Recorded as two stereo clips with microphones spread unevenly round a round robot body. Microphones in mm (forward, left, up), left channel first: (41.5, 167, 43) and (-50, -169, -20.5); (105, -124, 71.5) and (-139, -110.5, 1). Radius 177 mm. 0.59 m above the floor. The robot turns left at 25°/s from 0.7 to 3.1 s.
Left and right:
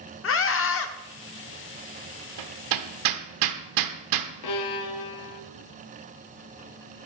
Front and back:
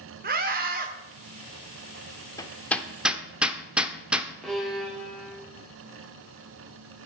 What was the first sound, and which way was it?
A scream, 135° left.